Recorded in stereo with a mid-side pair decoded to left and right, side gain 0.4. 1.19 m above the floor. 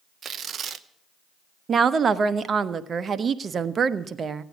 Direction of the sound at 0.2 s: 60° right.